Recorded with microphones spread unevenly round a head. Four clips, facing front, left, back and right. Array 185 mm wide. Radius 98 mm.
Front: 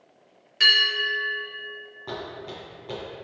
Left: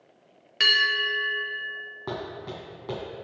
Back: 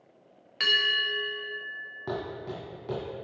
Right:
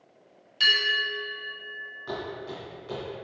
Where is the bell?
90° left, 1.5 m.